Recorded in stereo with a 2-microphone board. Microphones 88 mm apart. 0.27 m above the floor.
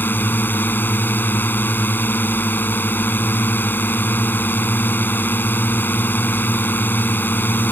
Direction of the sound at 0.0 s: 20° left (ahead or behind).